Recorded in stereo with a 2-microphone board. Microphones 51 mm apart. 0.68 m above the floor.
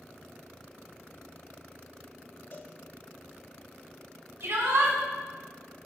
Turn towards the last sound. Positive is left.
turn(degrees=-50)  # may be behind; listen again after turning